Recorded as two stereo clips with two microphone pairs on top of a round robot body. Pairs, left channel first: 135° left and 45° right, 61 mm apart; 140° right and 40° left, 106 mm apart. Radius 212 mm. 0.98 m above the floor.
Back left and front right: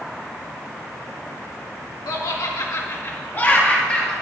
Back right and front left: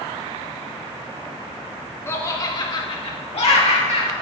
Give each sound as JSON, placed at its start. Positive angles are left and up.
{"t": 2.1, "sound": "laughter", "azimuth_deg": 150, "distance_m": 1.2}